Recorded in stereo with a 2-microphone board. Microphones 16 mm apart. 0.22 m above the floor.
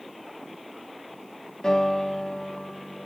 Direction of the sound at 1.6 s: 40° left (ahead or behind).